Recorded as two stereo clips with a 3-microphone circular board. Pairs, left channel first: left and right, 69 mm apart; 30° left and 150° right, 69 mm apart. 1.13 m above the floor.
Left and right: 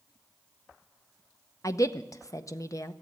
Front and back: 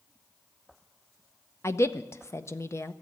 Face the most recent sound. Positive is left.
turn(degrees=65)